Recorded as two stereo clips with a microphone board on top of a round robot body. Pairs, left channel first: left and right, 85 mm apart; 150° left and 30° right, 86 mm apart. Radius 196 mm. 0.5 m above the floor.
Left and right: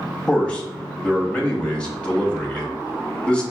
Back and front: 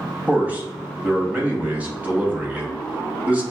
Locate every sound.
0.3 s a man speaking: 25° left, 1.2 m